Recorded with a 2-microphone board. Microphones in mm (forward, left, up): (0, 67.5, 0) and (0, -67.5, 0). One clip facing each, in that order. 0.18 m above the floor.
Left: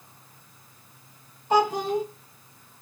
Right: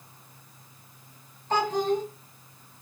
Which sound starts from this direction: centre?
A child speaking, at 1.5 s.